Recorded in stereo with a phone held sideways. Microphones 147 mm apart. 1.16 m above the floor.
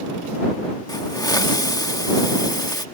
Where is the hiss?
25° left (ahead or behind).